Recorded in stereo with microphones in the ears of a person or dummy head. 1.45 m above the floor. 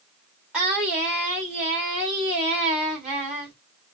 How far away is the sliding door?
No sliding door in this recording.